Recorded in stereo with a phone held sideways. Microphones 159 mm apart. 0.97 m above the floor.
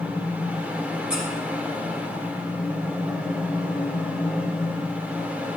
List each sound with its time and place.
0.0 s a fan: 10° right (ahead or behind), 1.2 m
1.1 s a squeak: 5° right (ahead or behind), 3.5 m